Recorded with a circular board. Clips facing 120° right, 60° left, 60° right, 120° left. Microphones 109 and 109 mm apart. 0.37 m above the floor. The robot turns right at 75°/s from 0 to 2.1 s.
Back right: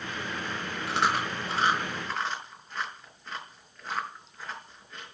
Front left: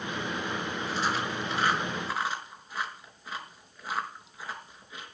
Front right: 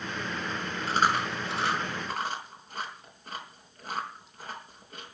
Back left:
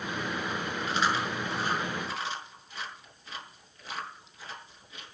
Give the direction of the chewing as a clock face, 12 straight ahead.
4 o'clock.